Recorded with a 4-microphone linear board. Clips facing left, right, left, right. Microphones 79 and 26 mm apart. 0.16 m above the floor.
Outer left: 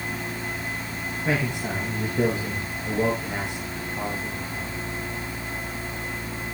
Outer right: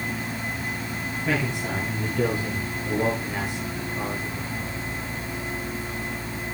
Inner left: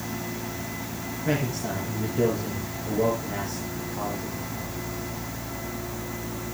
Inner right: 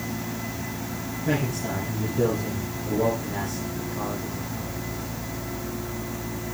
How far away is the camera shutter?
No camera shutter in this recording.